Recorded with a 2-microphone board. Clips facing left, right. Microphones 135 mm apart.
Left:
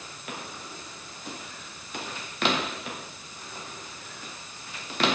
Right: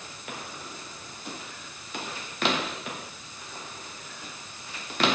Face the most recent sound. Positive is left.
No sound to turn to.